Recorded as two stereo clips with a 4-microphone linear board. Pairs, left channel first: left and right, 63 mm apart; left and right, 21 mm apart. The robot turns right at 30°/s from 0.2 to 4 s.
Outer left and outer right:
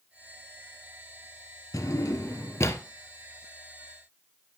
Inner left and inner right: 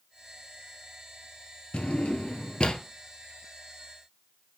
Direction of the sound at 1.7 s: 95° left.